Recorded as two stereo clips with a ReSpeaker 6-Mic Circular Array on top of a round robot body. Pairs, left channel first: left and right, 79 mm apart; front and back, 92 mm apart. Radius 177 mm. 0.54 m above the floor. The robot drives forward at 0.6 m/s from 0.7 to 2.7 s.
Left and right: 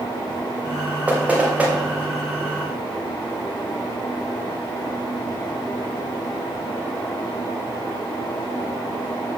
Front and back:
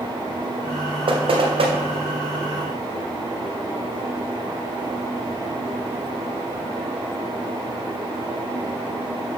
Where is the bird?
No bird in this recording.